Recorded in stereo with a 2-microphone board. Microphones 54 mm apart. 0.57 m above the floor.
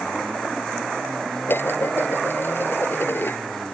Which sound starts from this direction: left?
Dishes clattering, at 1.5 s.